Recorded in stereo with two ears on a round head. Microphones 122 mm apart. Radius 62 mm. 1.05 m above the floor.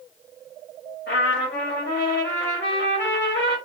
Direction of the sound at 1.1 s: 70° left (ahead or behind).